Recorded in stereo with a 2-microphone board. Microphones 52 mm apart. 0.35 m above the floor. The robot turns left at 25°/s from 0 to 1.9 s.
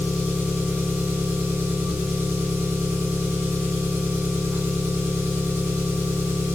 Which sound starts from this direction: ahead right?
An engine running, at 0.0 s.